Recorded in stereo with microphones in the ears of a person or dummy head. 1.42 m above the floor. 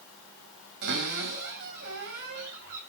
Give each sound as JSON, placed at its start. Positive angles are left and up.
{"t": 0.8, "sound": "a cupboard door", "side_deg": -65, "distance_m": 4.5}